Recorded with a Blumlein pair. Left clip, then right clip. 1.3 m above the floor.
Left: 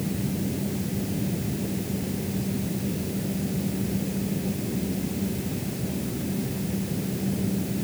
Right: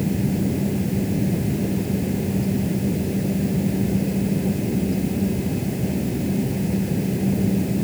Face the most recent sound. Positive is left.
turn(degrees=-20)